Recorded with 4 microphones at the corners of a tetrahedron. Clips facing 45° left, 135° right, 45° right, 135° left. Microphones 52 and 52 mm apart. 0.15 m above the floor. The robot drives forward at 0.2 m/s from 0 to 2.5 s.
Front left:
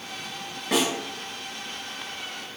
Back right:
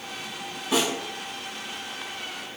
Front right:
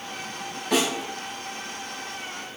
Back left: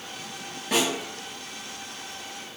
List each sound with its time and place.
0.7 s a snare drum: 55° left, 1.9 m